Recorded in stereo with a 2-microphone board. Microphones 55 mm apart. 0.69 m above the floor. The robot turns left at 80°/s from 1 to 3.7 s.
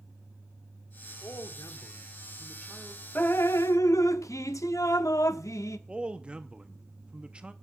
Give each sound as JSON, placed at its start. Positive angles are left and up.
{"t": 1.2, "sound": "a man speaking", "azimuth_deg": 125, "distance_m": 1.4}
{"t": 3.1, "sound": "dripping", "azimuth_deg": 145, "distance_m": 0.7}
{"t": 5.9, "sound": "a man speaking", "side_deg": -20, "distance_m": 0.9}